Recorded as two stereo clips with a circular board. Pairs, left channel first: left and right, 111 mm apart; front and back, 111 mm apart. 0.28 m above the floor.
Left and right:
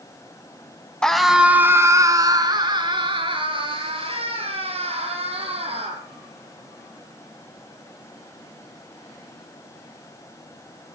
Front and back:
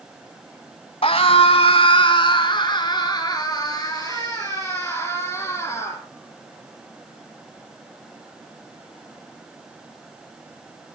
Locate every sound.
1.0 s a scream: 10° left, 1.7 m; by 6.0 s 60° right, 7.5 m